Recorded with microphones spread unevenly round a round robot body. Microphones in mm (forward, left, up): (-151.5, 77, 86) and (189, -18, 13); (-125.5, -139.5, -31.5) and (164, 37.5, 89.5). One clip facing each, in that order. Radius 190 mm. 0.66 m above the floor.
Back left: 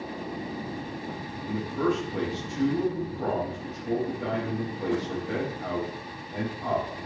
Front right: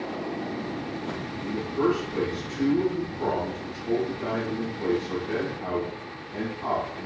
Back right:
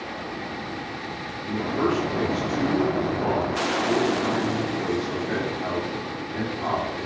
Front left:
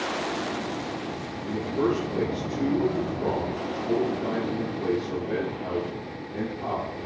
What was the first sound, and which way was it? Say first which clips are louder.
A man speaking: front right 2 dB, back right 1 dB; 155° right.